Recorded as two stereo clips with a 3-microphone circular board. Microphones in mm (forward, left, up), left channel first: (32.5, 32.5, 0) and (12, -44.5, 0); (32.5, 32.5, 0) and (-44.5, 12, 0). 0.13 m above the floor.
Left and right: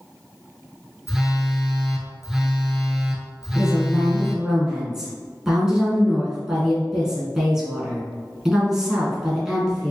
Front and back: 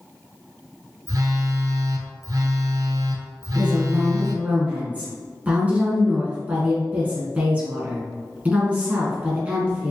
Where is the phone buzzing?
175° left, 0.5 m.